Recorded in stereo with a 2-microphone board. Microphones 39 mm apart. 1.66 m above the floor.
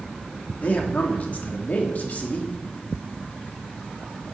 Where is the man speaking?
40° left (ahead or behind), 3 m.